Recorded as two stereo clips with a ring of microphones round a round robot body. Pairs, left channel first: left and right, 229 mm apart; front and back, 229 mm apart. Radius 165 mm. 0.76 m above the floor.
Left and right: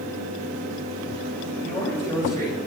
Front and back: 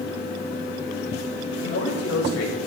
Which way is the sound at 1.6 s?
10° left.